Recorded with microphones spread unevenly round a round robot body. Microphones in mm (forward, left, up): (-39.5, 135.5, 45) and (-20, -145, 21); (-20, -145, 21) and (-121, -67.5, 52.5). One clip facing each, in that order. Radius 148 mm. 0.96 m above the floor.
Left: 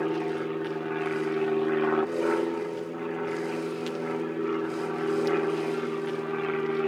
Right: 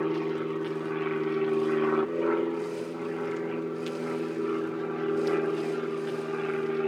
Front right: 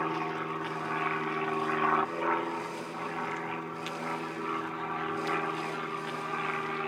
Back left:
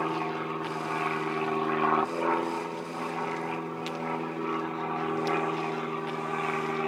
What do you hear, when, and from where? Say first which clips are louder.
0.0 s an aircraft: even, back left 2 dB; 150° right; by 6.9 s straight behind